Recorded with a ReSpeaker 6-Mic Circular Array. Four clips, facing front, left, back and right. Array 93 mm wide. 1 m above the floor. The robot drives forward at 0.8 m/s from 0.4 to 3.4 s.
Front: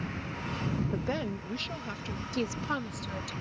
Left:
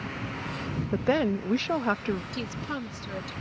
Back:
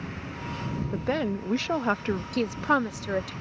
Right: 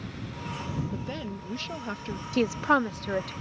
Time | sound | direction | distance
0.9 | a woman speaking | 95° left | ?
2.3 | a woman speaking | 105° right | ?